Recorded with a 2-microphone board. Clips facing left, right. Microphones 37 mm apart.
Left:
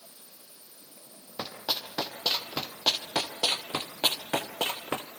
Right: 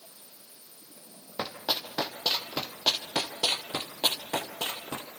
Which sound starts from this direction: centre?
Running footsteps, at 1.4 s.